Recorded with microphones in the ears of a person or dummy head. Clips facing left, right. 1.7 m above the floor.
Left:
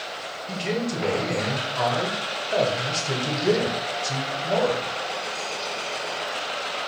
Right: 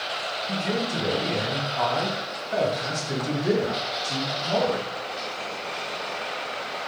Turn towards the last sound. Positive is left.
turn(degrees=45)  # may be behind; listen again after turning